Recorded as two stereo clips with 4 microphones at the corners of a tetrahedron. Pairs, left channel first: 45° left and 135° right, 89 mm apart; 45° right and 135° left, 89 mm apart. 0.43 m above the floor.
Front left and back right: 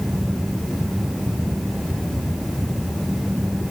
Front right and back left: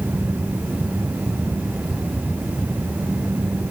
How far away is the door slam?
No door slam in this recording.